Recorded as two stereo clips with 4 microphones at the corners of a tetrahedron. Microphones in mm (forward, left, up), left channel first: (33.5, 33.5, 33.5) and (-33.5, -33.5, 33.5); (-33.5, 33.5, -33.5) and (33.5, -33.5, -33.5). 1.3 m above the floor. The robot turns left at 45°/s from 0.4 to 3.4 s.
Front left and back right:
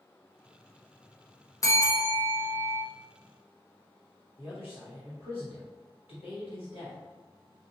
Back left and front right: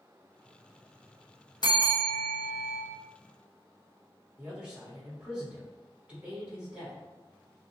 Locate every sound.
1.6 s a bell: 100° left, 0.9 m; by 2.8 s 45° left, 0.9 m
4.4 s a man speaking: 35° left, 1.4 m